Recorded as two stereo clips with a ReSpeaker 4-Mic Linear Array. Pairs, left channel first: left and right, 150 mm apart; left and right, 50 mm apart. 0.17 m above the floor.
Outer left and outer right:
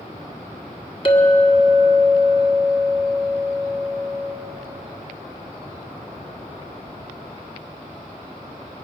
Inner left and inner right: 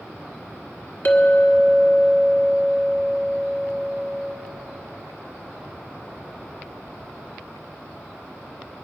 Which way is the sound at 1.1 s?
40° left (ahead or behind).